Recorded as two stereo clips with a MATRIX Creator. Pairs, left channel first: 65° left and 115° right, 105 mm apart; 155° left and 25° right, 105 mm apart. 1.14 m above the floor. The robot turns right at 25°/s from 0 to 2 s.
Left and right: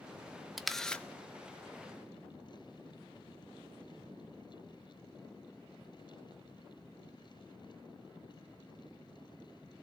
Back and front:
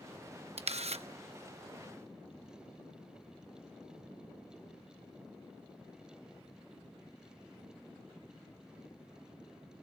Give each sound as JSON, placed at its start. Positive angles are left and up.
{"t": 0.6, "sound": "a camera shutter", "azimuth_deg": -25, "distance_m": 0.8}